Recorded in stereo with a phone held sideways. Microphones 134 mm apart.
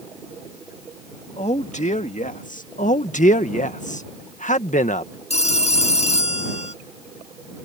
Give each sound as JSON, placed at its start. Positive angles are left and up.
{"t": 1.4, "sound": "a man speaking", "side_deg": 55}
{"t": 2.8, "sound": "a man speaking", "side_deg": 70}
{"t": 5.3, "sound": "a phone ringing", "side_deg": 50}